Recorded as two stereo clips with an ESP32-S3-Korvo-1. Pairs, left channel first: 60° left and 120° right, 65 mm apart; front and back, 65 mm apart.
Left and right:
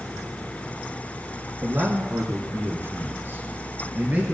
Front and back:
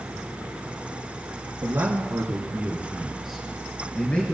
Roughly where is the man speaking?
Behind.